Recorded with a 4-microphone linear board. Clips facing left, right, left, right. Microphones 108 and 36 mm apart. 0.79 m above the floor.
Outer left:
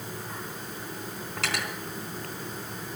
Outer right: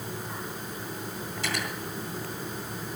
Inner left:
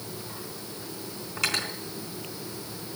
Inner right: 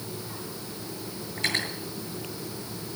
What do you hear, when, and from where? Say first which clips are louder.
1.4 s cutlery clinking: outer left 1 dB, even; 90° left, 4 m